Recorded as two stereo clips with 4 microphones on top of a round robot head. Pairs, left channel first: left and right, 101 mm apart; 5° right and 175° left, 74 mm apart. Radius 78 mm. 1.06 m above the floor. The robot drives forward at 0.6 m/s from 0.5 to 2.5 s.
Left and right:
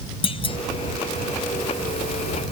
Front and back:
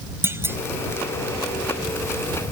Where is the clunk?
120° left.